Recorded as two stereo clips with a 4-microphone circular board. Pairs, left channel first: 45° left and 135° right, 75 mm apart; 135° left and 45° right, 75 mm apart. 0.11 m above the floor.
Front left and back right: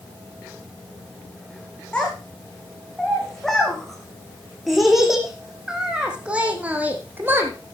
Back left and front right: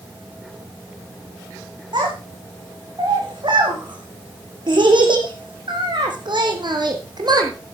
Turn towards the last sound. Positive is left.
turn(degrees=-75)